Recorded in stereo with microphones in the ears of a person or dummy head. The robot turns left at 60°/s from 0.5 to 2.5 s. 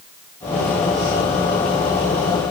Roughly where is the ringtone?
No ringtone in this recording.